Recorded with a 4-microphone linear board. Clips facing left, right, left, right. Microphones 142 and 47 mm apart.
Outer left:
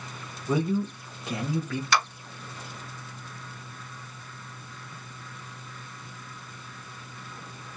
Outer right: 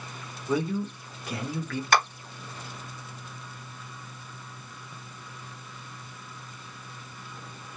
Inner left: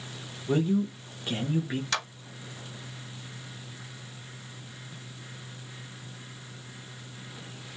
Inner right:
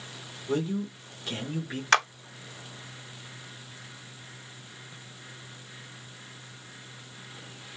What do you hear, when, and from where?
0.5 s a man speaking: 20° left (ahead or behind), 1.1 m
1.9 s a clap: 50° right (ahead or behind), 0.6 m